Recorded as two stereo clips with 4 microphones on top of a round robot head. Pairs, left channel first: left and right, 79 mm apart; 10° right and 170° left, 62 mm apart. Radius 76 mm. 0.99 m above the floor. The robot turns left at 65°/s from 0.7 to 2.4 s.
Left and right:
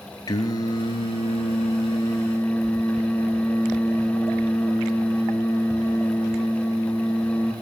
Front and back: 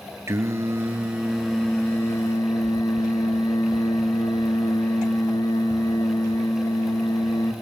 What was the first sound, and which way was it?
Singing, 130° left.